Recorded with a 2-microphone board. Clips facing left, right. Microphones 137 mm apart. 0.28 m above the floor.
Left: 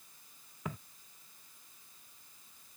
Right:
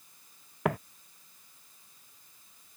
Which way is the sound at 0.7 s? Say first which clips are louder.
Right 13 dB; 75° right (ahead or behind).